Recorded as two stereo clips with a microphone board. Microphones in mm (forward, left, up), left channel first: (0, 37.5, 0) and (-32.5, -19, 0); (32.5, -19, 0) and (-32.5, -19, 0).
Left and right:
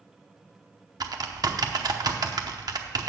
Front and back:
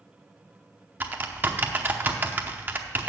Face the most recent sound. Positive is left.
turn(degrees=-120)